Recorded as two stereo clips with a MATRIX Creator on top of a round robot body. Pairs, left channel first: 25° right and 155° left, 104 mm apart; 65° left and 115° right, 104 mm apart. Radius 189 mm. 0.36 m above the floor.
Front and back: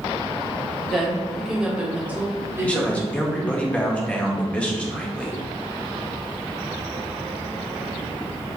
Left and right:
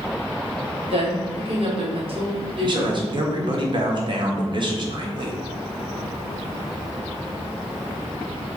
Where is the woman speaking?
110° right, 2.5 m; by 3.1 s 145° right, 2.5 m.